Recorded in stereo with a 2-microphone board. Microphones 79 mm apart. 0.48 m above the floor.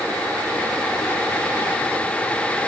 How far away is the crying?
I don't hear crying.